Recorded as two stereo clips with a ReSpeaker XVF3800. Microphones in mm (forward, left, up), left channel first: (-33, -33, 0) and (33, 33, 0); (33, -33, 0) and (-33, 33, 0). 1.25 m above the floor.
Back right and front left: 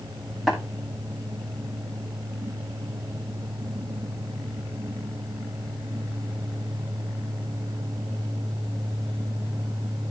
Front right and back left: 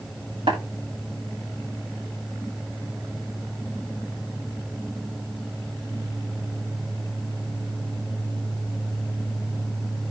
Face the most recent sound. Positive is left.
turn(degrees=135)